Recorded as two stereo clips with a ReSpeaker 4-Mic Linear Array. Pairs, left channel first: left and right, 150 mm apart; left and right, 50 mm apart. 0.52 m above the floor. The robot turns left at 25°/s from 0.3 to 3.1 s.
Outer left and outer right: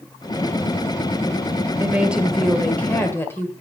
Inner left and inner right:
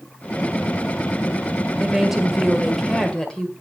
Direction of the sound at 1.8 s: 165° right.